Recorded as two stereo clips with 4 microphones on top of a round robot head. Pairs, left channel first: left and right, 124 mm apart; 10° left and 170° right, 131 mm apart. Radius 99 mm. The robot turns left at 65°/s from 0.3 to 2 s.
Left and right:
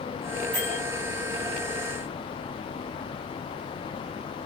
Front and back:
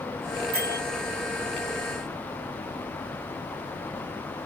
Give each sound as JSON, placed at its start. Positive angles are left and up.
{"t": 0.5, "sound": "a bell", "azimuth_deg": -145, "distance_m": 2.5}